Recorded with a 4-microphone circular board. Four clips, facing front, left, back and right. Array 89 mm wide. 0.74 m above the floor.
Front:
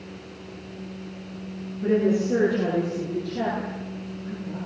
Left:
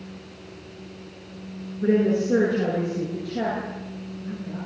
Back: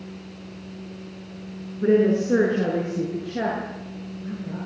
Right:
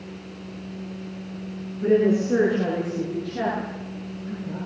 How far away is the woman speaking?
About 8.5 m.